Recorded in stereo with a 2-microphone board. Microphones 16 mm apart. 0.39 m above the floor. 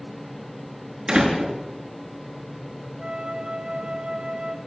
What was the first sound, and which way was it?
A door slam, 65° right (ahead or behind).